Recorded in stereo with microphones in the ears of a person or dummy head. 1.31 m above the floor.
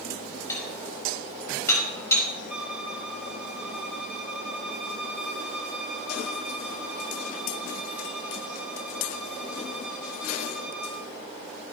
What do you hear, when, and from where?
0.5 s dishes clattering: 15° left (ahead or behind), 4.5 m
2.5 s a violin: 5° right (ahead or behind), 3 m